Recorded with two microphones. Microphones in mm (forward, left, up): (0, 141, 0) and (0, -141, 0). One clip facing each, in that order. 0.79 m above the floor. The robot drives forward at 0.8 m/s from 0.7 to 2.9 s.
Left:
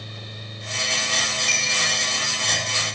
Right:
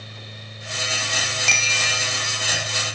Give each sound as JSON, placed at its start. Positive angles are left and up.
{"t": 1.4, "sound": "a bicycle bell", "side_deg": -85, "distance_m": 3.0}